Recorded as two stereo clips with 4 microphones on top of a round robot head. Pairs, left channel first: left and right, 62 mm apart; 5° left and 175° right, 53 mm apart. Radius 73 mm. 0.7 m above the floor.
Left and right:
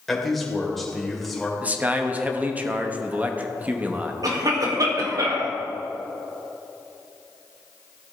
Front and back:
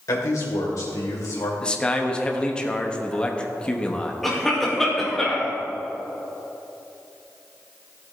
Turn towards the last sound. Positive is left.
turn(degrees=-80)